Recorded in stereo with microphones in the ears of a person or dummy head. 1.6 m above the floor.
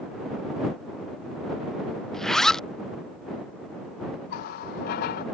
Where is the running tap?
50° left (ahead or behind).